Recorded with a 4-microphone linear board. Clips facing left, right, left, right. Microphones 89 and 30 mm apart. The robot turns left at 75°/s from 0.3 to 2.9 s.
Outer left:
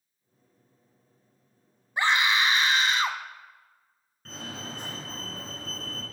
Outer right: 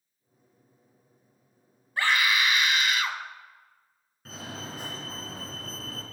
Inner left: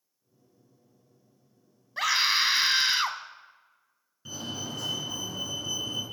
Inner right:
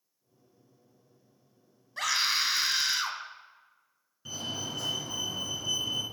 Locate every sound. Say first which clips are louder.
2.0 s a scream: outer left 1 dB, inner left 4 dB; 145° left, 1.1 m; by 3.2 s 75° left, 1.1 m
4.2 s a fire alarm: even, even; 5° right (ahead or behind), 3.5 m